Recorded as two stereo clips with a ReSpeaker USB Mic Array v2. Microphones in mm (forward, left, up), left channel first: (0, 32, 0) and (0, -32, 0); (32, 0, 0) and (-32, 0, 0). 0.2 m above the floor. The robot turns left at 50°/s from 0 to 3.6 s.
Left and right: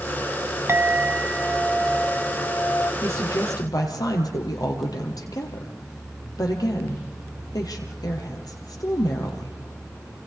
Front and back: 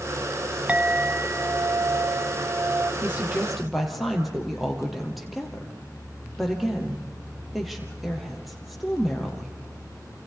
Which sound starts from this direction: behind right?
A clink, at 0.7 s.